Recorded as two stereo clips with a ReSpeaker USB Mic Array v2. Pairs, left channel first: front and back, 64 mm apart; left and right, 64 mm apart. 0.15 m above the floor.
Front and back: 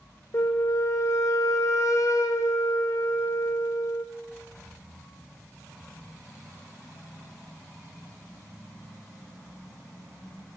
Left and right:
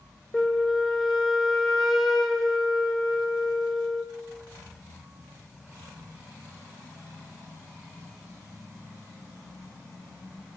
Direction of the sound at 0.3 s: Straight ahead.